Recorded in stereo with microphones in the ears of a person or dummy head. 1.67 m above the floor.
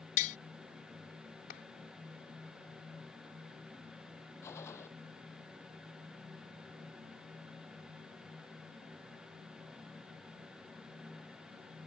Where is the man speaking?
I don't hear a man speaking.